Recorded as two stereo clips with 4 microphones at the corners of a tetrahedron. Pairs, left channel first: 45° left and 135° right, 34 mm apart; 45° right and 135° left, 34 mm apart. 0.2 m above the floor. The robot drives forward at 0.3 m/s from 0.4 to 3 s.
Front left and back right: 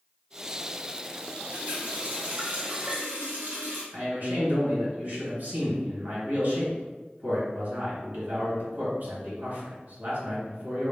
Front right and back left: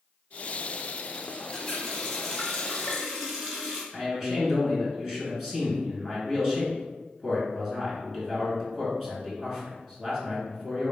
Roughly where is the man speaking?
Behind right.